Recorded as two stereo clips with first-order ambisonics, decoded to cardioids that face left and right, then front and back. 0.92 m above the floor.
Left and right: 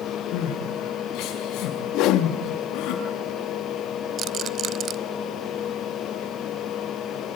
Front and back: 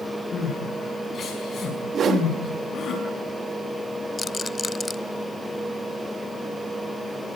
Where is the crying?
60° left, 5.5 m.